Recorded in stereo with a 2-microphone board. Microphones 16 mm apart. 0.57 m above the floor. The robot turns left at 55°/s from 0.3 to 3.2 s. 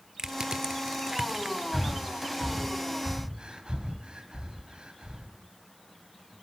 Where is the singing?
I don't hear singing.